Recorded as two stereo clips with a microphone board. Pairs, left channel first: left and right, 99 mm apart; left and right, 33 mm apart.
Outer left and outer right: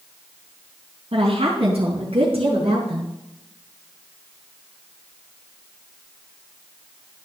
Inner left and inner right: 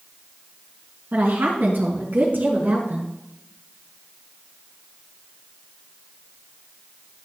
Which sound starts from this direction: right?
A woman speaking, at 1.1 s.